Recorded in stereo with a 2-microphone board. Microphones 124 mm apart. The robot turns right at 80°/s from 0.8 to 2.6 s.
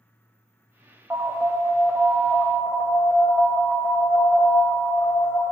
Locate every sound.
1.1 s an alarm: 10° right (ahead or behind), 1.9 m; by 5.5 s 20° left (ahead or behind), 1.9 m